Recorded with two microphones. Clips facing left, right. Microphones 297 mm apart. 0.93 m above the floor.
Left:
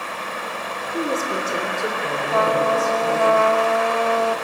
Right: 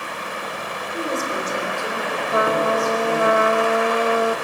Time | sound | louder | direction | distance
0.9 | a woman speaking | left 2 dB | 35° left (ahead or behind) | 3 m
2.3 | a trumpet | even | 20° right (ahead or behind) | 0.6 m